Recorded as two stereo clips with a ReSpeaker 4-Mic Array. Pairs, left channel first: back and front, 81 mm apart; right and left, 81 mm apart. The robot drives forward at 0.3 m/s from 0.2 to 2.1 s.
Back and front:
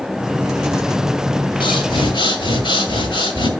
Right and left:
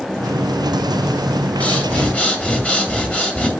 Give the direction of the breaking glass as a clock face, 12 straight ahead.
No breaking glass in this recording.